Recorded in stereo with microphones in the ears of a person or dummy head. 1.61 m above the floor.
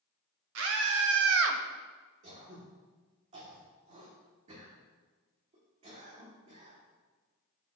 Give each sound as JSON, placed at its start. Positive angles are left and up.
{"t": 0.6, "sound": "a scream", "side_deg": -70, "distance_m": 1.1}
{"t": 2.2, "sound": "throat clearing", "side_deg": -35, "distance_m": 1.5}